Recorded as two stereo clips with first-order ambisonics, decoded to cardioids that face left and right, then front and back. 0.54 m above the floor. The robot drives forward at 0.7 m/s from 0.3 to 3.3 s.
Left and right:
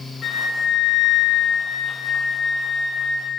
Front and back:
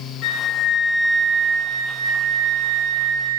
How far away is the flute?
About 0.7 m.